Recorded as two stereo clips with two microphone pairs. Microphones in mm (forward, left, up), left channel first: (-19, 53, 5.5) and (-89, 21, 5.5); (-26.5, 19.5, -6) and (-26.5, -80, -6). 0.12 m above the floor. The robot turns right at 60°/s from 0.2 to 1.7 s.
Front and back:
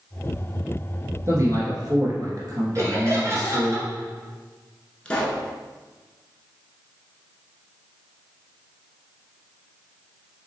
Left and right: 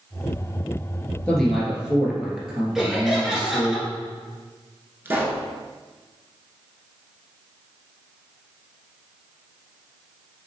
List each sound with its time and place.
1.3 s a man speaking: 165° left, 1.7 m; by 3.8 s 170° right, 1.7 m
2.8 s laughter: 170° right, 2.0 m
5.0 s a pop: 45° right, 0.9 m